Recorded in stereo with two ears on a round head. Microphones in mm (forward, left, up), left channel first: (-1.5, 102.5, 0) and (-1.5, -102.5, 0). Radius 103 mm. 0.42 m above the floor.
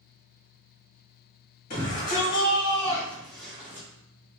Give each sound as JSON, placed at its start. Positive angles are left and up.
{"t": 1.7, "sound": "a shout", "side_deg": 35, "distance_m": 2.5}